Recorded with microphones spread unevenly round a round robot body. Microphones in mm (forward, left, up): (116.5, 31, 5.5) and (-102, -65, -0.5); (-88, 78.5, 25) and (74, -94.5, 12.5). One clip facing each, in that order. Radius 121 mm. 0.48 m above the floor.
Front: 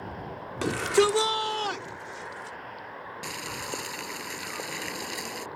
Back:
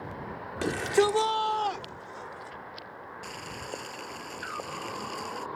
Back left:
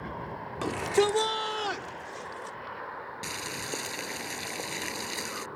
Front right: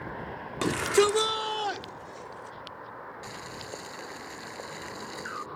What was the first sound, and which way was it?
A shout, 55° right.